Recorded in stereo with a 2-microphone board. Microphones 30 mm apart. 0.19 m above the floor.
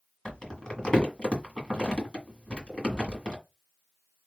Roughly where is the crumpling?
Left.